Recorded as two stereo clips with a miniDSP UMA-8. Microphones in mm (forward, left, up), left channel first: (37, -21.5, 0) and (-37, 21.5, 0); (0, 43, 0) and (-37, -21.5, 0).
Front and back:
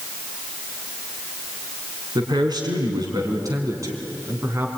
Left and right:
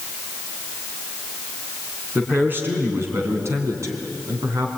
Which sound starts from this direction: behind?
A man speaking, at 2.1 s.